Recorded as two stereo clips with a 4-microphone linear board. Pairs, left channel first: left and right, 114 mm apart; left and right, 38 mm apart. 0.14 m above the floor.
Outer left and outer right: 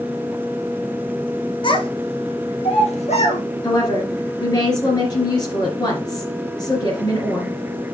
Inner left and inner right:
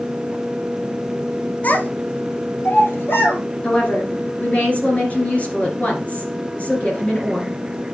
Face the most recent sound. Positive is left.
turn(degrees=35)  # may be behind; listen again after turning